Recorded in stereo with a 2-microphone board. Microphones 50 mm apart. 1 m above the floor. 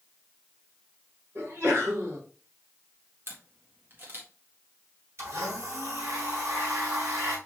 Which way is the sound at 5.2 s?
65° right (ahead or behind).